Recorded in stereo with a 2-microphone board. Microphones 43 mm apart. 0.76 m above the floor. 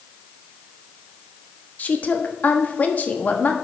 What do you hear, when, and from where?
1.8 s a woman speaking: 40° left (ahead or behind), 1.2 m